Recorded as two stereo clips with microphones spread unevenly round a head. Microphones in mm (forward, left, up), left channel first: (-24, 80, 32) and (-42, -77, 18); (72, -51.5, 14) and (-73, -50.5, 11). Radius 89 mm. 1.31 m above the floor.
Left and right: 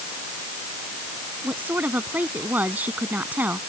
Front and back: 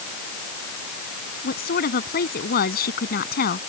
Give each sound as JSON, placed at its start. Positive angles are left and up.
{"t": 1.4, "sound": "a woman speaking", "azimuth_deg": -15}